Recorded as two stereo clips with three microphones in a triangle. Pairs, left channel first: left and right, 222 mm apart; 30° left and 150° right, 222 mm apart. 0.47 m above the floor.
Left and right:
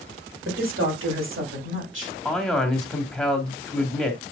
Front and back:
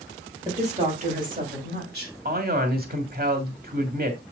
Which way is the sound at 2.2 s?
Straight behind.